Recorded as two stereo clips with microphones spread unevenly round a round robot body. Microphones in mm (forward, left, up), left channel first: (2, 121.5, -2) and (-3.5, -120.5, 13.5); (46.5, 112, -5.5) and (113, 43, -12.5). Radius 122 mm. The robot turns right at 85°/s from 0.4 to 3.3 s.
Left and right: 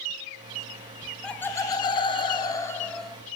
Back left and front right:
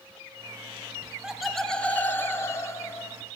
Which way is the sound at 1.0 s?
5° right.